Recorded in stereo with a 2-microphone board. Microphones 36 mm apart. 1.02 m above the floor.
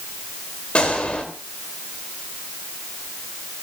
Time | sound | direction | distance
0.8 | a gunshot | 30° left (ahead or behind) | 2.5 m